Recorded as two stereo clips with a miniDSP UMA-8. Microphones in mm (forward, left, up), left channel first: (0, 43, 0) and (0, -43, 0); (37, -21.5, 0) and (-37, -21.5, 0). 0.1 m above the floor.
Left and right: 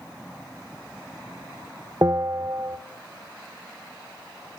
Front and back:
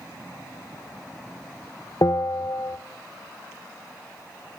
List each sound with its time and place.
2.0 s a bell: 40° right, 0.6 m